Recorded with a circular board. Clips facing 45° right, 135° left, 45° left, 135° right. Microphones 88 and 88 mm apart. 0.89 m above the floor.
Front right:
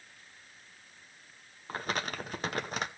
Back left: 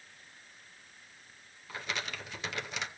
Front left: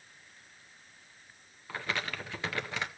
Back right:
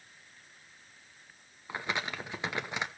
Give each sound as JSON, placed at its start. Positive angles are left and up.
{"t": 1.7, "sound": "crumpling", "azimuth_deg": -70, "distance_m": 0.8}